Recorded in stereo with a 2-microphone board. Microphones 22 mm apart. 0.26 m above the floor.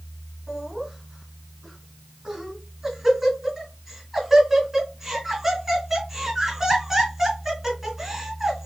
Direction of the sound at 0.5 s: 5° right (ahead or behind).